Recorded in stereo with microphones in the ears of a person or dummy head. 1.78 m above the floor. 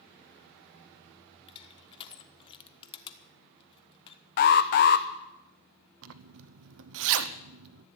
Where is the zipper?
70° right (ahead or behind), 0.8 m.